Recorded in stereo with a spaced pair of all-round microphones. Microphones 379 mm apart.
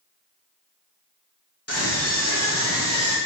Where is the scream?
40° left (ahead or behind), 5 m; by 3.2 s 45° left (ahead or behind), 5.5 m.